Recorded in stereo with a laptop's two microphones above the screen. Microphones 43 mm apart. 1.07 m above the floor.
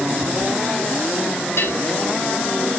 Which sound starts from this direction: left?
A bell, at 1.6 s.